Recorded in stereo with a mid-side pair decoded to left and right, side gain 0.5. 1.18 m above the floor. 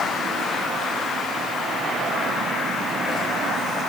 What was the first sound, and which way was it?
Only background noise.